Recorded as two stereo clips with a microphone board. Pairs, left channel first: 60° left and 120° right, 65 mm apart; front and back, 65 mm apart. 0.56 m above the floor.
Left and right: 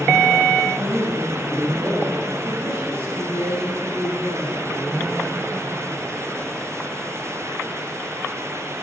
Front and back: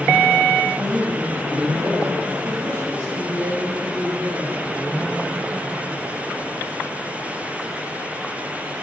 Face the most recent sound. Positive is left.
turn(degrees=180)